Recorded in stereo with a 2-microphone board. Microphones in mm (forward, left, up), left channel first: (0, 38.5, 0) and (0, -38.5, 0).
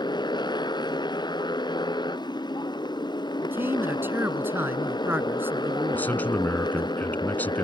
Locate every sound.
0.0 s a motorcycle: 90° left
3.4 s a man speaking: 30° right (ahead or behind)
5.9 s a man speaking: 25° left (ahead or behind)